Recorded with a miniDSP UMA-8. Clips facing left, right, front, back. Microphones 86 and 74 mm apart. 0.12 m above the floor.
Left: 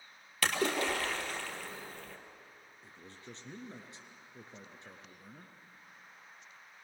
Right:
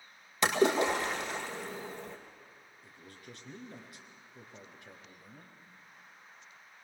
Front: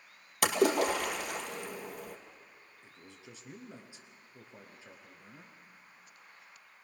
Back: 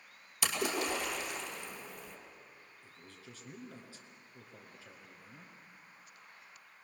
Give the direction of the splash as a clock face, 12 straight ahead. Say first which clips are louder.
Right 5 dB, front 8 dB; 1 o'clock.